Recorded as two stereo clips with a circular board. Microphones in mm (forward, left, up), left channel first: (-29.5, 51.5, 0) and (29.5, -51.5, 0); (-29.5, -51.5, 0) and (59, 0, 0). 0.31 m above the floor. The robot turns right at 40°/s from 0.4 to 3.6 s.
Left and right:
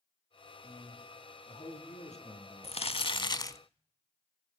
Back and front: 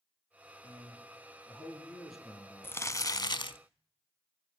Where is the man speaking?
60° left, 7 m; by 3.5 s 175° left, 7 m.